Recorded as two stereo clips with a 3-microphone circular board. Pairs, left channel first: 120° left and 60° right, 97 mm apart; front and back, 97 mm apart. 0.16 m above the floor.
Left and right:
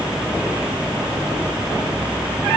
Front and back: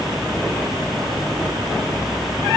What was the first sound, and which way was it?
Only background noise.